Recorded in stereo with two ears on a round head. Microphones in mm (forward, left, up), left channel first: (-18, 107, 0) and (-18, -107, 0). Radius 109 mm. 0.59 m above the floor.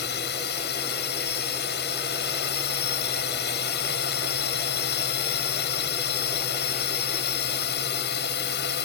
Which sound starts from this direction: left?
A drone, at 0.0 s.